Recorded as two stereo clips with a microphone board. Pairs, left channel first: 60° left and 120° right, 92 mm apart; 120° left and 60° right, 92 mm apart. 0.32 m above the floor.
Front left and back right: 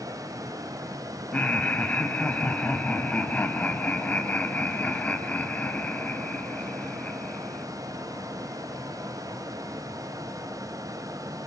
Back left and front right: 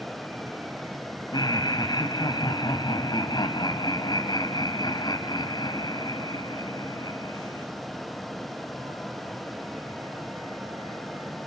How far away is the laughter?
About 2.5 m.